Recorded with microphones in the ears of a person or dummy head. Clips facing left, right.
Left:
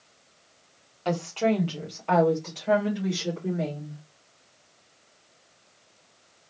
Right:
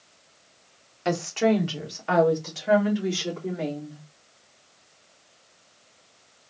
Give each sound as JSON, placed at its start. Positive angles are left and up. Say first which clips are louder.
{"t": 1.1, "sound": "a woman speaking", "louder": "right 2 dB", "side_deg": -25, "distance_m": 1.0}